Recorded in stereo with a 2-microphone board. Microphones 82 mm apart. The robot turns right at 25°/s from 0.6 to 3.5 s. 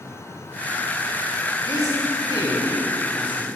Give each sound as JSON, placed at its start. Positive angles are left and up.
{"t": 1.7, "sound": "a man speaking", "azimuth_deg": 45, "distance_m": 3.5}